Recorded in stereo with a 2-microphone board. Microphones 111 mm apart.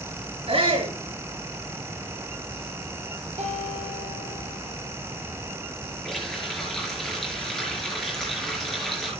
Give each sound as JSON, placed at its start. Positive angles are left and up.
{"t": 0.5, "sound": "a shout", "side_deg": -60, "distance_m": 7.0}
{"t": 3.4, "sound": "a guitar", "side_deg": -80, "distance_m": 4.5}
{"t": 6.0, "sound": "a running tap", "side_deg": 5, "distance_m": 6.0}